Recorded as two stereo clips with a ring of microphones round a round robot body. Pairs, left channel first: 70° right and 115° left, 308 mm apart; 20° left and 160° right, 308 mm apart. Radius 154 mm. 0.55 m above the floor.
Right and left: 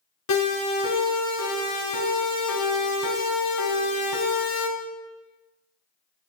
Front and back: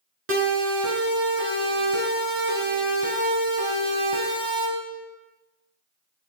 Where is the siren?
105° right, 8.5 m; by 4.7 s 80° right, 4.5 m.